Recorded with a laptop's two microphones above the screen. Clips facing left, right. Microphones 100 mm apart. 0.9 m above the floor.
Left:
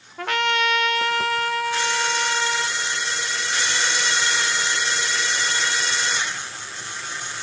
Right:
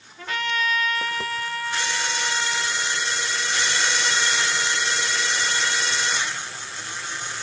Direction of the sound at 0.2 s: 75° left (ahead or behind).